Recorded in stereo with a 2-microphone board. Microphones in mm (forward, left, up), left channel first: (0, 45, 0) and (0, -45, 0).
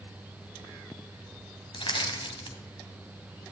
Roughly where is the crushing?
Left.